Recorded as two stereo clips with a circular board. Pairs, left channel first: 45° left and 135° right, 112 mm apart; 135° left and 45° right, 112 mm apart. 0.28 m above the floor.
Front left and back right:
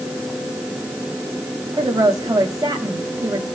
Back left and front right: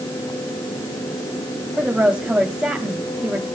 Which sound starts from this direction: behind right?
A woman speaking, at 1.8 s.